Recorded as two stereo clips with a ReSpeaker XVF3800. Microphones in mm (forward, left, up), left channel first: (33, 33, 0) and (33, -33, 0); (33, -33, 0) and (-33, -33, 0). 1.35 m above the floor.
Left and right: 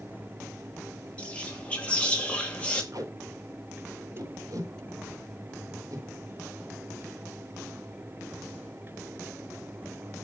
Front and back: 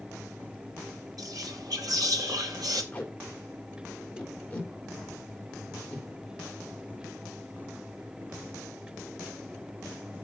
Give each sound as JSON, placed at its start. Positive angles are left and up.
{"t": 1.2, "sound": "whispering", "azimuth_deg": 160, "distance_m": 2.5}
{"t": 2.9, "sound": "tape being pulled", "azimuth_deg": -70, "distance_m": 3.0}